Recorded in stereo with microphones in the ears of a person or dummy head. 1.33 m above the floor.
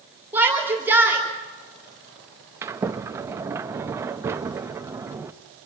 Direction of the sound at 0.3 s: 5° right (ahead or behind).